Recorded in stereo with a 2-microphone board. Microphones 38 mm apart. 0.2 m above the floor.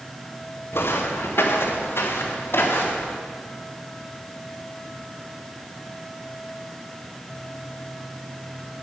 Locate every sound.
0.7 s footsteps: 85° left, 2 m; by 3.1 s 90° left, 3.5 m